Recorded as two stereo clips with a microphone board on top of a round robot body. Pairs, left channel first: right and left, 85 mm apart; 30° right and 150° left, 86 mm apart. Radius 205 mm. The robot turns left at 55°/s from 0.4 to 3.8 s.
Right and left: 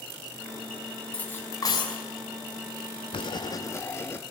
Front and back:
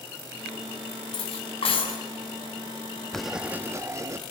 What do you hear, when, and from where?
1.1 s cutlery clinking: 15° right, 6 m; by 2.0 s 65° right, 6 m
3.1 s writing: 115° right, 0.5 m; by 4.2 s 150° right, 0.5 m